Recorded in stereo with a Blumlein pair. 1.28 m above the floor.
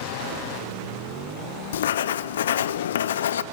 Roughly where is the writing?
Ahead left.